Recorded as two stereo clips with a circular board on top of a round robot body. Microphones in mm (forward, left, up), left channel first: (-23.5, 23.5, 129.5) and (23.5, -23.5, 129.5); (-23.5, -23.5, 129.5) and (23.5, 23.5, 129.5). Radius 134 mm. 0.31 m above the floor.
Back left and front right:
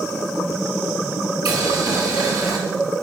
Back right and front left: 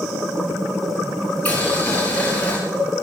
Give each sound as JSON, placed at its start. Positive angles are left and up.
{"t": 1.4, "sound": "boiling", "azimuth_deg": -65, "distance_m": 5.0}